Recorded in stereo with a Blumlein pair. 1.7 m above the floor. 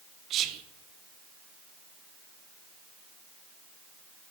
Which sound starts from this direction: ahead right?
Whispering, at 0.3 s.